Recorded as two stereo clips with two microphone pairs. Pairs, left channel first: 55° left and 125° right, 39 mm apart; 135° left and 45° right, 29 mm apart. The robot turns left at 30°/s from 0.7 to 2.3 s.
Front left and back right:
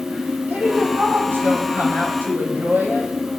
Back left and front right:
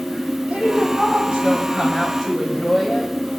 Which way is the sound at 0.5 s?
80° right.